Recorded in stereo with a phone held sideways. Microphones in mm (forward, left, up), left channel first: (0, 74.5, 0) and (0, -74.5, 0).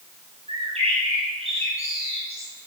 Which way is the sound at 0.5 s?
45° right (ahead or behind).